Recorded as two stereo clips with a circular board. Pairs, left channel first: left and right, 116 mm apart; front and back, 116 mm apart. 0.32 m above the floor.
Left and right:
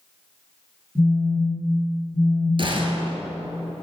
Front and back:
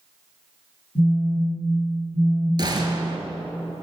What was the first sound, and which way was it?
A phone buzzing, 15° left.